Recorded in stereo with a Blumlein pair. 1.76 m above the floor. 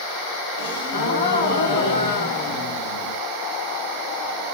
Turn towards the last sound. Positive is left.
turn(degrees=55)